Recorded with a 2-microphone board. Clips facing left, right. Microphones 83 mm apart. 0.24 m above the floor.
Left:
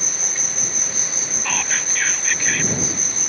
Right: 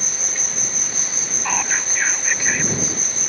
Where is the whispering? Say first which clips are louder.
Right 3 dB; 20° right (ahead or behind).